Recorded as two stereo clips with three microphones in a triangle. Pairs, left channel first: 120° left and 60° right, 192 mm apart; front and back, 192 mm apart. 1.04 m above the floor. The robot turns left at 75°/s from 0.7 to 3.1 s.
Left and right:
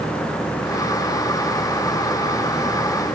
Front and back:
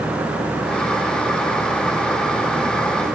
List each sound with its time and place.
Only background noise.